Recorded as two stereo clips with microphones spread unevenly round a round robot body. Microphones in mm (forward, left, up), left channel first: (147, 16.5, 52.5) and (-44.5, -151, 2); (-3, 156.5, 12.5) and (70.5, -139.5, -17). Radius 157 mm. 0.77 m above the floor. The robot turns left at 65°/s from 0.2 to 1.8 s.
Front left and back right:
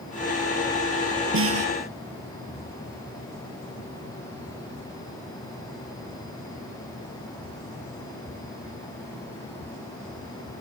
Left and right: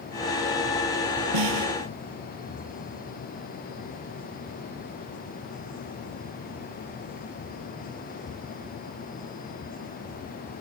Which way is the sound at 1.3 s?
95° right.